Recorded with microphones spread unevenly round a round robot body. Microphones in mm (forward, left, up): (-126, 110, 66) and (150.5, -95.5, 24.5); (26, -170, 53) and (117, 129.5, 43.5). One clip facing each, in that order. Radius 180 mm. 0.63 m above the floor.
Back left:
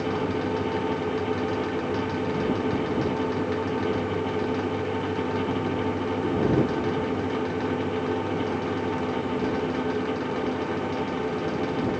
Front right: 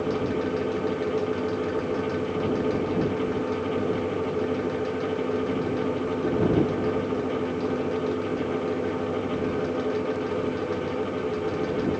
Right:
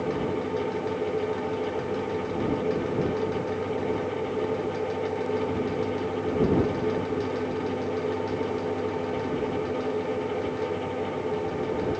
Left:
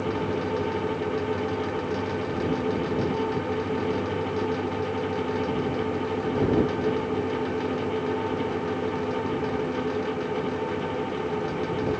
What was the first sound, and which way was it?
Only background noise.